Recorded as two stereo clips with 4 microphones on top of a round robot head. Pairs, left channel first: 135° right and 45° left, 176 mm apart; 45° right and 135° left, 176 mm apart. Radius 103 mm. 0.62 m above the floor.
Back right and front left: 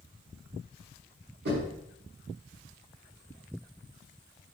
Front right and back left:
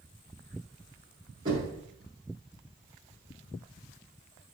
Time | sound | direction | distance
1.4 | knocking | 70° left | 6 m